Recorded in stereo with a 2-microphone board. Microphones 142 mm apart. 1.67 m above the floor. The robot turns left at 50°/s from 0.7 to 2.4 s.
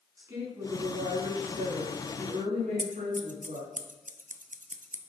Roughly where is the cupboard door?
I don't hear a cupboard door.